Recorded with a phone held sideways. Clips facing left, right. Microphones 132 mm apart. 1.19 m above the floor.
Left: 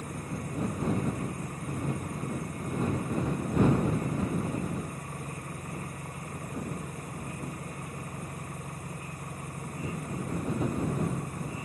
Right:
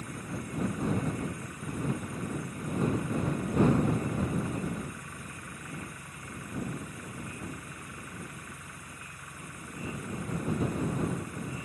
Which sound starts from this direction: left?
An engine running, at 0.0 s.